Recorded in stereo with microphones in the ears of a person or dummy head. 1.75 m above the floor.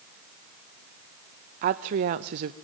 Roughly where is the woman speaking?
Right.